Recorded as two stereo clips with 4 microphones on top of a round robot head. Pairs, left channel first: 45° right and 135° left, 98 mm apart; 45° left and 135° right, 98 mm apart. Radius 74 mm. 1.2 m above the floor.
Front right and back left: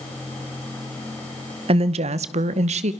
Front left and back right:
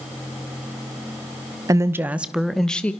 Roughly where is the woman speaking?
Behind.